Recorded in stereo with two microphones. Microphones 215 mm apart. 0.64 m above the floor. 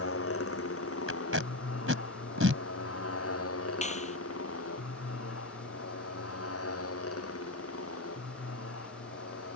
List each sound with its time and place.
0.0 s a motorcycle: 75° left (ahead or behind); by 9.6 s 80° left
1.1 s tape being pulled: 65° right (ahead or behind)
3.8 s a clap: 30° left (ahead or behind)